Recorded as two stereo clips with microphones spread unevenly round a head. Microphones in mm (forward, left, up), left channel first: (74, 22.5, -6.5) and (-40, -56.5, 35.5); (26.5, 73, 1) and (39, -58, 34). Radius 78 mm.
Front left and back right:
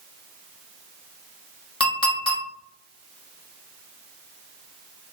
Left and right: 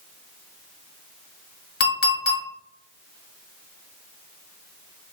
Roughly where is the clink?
Left.